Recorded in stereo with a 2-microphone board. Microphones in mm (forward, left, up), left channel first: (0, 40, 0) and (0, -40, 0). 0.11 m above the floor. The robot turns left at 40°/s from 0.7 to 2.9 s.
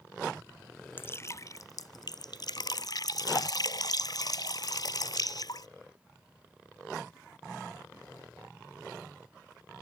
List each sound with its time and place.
1.0 s dripping: 150° left; by 5.7 s 70° left